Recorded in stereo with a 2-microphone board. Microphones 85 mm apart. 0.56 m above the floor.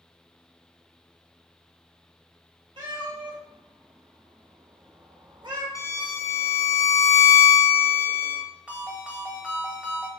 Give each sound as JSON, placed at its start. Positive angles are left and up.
{"t": 2.8, "sound": "a cat meowing", "side_deg": -70, "distance_m": 1.9}
{"t": 5.8, "sound": "a violin", "side_deg": 40, "distance_m": 0.7}
{"t": 8.7, "sound": "a ringtone", "side_deg": -10, "distance_m": 1.4}